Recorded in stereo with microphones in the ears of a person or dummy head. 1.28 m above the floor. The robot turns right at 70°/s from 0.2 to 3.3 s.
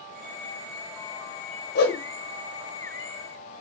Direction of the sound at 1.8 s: 45° left (ahead or behind).